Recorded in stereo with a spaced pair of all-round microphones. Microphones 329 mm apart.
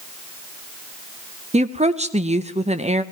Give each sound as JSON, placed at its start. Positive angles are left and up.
{"t": 1.5, "sound": "a woman speaking", "side_deg": -20, "distance_m": 0.6}